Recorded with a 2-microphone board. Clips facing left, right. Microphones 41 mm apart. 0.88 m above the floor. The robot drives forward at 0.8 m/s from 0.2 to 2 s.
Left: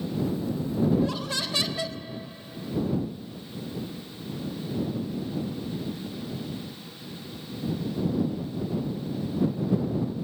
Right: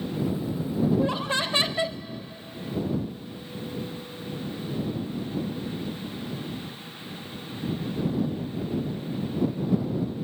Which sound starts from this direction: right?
Laughter, at 0.9 s.